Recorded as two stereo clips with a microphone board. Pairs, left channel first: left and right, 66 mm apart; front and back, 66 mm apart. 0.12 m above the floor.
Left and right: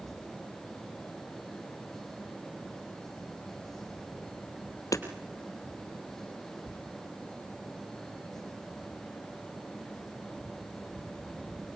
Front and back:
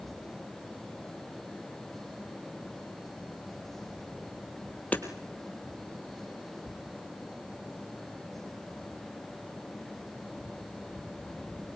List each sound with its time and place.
4.9 s hammering: 65° left, 3 m